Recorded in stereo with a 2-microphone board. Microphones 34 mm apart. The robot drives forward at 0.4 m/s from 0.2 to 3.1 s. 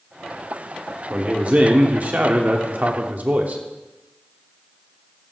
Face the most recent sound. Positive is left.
turn(degrees=-45)  # may be behind; listen again after turning